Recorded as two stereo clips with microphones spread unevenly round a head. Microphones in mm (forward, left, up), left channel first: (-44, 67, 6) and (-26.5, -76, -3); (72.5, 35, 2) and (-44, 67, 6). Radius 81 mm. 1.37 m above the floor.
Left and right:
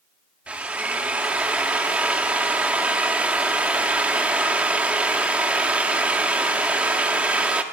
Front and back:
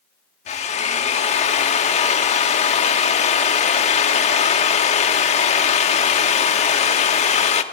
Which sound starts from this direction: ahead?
A drill, at 0.5 s.